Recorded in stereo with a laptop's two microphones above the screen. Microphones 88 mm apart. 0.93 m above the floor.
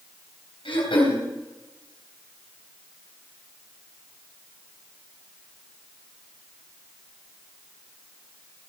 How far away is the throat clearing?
About 3.5 m.